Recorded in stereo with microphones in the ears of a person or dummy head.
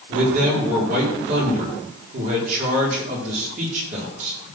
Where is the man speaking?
45° right (ahead or behind), 4.5 m.